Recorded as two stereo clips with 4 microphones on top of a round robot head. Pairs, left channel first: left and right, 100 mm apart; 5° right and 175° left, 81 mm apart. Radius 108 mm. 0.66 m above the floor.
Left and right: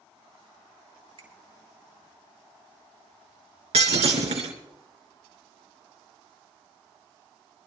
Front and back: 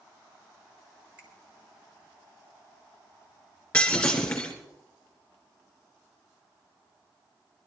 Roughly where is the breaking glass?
Right.